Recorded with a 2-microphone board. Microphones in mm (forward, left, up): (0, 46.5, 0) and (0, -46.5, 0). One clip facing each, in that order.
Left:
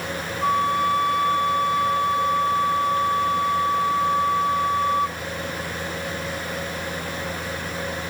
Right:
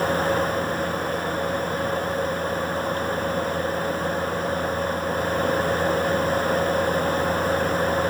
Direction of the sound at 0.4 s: 85° left.